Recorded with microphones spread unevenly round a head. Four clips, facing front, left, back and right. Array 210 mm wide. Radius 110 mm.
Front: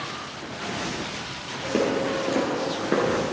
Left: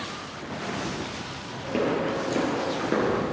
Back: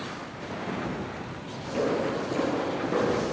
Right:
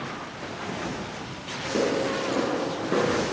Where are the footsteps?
Straight ahead, 2.5 m; by 3.2 s 5° right, 1.7 m.